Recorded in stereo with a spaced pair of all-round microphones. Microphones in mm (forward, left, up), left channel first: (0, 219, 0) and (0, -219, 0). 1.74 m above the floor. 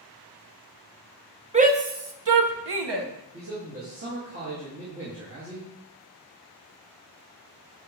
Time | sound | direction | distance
1.5 | a shout | 15° right (ahead or behind) | 0.8 m
3.3 | a man speaking | 30° right (ahead or behind) | 1.9 m